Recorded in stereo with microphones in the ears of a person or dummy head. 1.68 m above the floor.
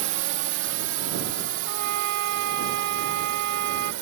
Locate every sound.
0.0 s a drone: 60° right (ahead or behind); by 4.0 s 65° right (ahead or behind)
1.6 s a trumpet: 60° right (ahead or behind)